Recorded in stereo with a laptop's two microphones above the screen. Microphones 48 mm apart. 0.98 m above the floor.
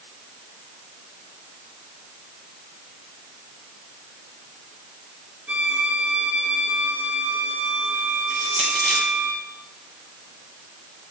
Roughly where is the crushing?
Left.